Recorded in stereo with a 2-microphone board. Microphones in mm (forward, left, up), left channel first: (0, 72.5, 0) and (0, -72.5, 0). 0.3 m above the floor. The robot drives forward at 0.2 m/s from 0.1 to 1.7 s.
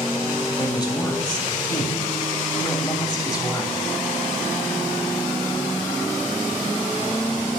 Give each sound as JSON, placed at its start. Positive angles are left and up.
{"t": 0.6, "sound": "a woman speaking", "side_deg": 30, "distance_m": 1.0}